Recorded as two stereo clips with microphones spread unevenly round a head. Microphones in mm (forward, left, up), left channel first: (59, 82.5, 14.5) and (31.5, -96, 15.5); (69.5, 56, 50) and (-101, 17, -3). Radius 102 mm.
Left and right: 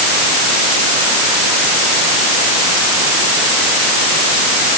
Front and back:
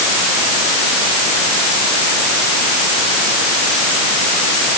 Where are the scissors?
No scissors in this recording.